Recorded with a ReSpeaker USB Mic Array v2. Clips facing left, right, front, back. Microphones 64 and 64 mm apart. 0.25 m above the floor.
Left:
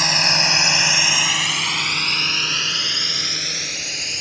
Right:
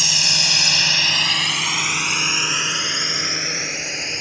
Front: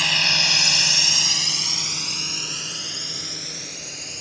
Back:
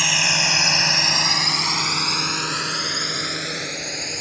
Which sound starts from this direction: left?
A drone, at 0.0 s.